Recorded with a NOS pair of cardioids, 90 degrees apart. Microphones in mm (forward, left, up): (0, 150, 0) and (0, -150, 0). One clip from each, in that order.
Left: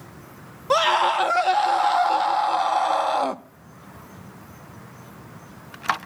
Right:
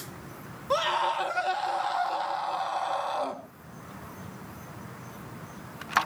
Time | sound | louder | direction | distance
0.7 | a scream | left 7 dB | 50° left | 1.2 m